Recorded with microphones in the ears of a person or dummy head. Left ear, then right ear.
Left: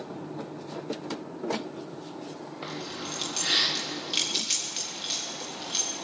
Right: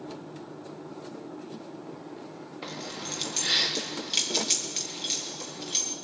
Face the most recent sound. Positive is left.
turn(degrees=-10)  # may be behind; listen again after turning